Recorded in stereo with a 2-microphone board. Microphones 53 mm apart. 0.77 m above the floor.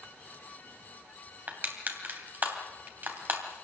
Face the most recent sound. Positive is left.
turn(degrees=-35)  # may be behind; listen again after turning